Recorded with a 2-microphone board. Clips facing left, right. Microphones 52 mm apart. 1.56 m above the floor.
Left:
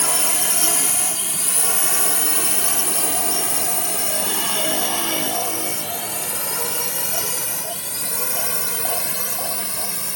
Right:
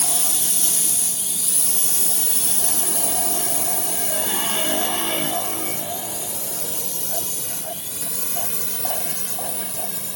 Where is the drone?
60° left (ahead or behind); by 10.2 s 75° left (ahead or behind).